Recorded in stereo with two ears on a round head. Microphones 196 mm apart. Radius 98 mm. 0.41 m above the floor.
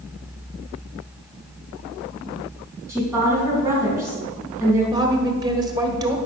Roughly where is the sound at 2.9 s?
Centre.